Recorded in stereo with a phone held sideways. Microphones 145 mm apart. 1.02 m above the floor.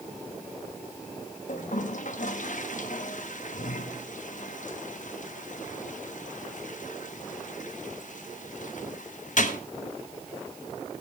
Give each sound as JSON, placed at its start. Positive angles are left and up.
{"t": 1.5, "sound": "a toilet flushing", "side_deg": 60, "distance_m": 1.0}